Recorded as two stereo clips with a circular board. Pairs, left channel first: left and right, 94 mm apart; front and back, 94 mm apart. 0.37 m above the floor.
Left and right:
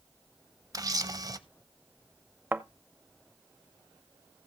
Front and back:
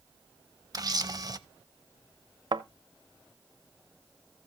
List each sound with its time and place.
0.7 s a camera shutter: 135° right, 0.5 m
2.5 s a thud: 155° right, 0.5 m